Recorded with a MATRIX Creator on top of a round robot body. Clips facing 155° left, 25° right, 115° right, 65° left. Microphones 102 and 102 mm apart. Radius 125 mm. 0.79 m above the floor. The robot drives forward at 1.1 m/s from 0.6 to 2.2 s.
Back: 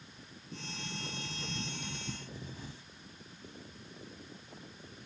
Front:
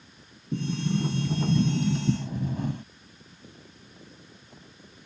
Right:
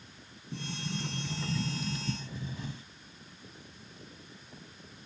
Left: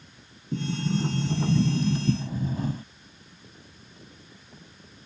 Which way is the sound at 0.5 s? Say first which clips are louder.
Front 17 dB, left 11 dB; 10° left.